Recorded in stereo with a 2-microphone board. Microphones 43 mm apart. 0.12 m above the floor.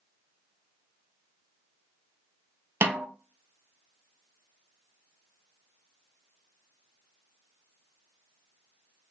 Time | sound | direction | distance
2.8 | a snare drum | 70° right (ahead or behind) | 0.6 m